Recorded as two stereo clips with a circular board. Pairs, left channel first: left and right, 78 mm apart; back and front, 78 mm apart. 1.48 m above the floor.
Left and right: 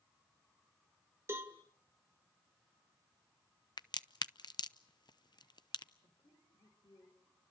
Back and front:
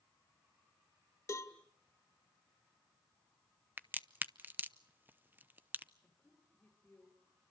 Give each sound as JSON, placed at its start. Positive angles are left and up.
{"t": 1.3, "sound": "a cowbell", "azimuth_deg": -140, "distance_m": 1.7}
{"t": 3.8, "sound": "a crack", "azimuth_deg": 65, "distance_m": 0.7}
{"t": 6.0, "sound": "a woman speaking", "azimuth_deg": 105, "distance_m": 5.0}